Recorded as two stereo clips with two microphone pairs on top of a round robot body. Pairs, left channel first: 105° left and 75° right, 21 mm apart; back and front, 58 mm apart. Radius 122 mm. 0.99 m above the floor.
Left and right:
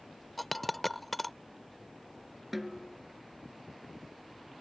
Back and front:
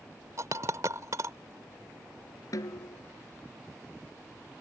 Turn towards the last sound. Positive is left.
turn(degrees=-150)